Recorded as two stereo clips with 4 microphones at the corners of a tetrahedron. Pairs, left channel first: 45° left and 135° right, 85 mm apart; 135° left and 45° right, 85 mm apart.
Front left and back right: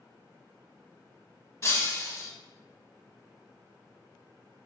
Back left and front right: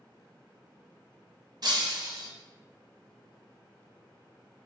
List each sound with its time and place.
1.6 s breaking glass: 15° right, 0.7 m